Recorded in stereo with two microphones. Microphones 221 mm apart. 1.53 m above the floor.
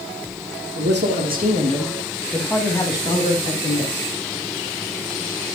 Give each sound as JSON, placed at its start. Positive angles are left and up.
{"t": 0.8, "sound": "a man speaking", "side_deg": -55, "distance_m": 3.0}